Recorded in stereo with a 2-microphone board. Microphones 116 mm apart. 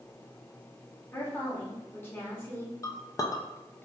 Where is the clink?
30° left (ahead or behind), 0.5 m.